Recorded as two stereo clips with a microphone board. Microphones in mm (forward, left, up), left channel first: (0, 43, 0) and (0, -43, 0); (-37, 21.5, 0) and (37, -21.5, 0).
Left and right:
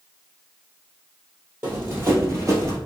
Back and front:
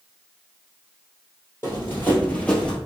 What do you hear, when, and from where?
1.6 s running footsteps: 155° right, 2.0 m; by 2.8 s 130° right, 1.6 m